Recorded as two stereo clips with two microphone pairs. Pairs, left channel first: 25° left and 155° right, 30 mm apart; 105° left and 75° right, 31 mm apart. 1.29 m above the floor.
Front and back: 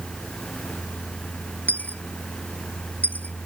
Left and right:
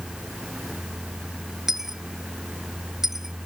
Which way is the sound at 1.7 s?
5° left.